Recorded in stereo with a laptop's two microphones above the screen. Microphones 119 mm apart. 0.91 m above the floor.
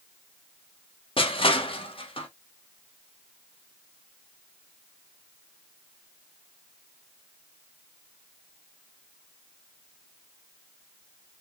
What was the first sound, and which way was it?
Crushing, 45° left (ahead or behind).